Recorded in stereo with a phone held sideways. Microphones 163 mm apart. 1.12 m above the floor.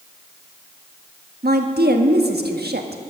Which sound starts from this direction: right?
A woman speaking, at 1.4 s.